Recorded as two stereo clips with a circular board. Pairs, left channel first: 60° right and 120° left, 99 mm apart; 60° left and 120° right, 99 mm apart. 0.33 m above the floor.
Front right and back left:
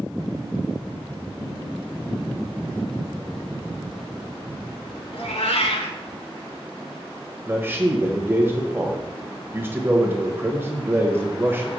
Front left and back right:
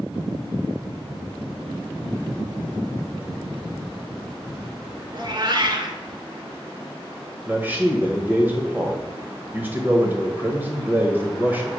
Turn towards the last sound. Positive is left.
turn(degrees=180)